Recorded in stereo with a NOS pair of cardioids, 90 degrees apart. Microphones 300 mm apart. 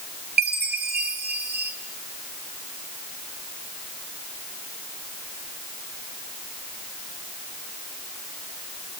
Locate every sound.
0.4 s a chime: 35° right, 3.5 m